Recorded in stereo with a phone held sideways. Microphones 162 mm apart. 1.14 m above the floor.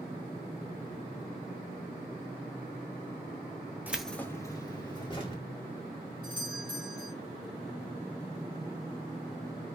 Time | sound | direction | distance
3.9 | keys jangling | 10° right (ahead or behind) | 0.7 m
6.2 | a doorbell | 30° right (ahead or behind) | 4 m